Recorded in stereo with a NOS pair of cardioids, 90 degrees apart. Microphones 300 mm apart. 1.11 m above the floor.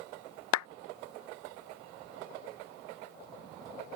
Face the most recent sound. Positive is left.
turn(degrees=70)